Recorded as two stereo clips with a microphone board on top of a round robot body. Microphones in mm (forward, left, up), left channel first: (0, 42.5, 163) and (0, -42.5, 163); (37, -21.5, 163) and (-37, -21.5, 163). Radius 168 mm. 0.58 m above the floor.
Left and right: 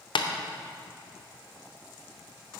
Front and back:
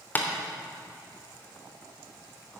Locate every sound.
0.1 s tapping: 65° left, 0.9 m